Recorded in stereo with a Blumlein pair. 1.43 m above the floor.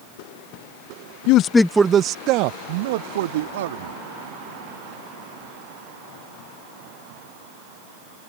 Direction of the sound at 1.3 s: 45° left.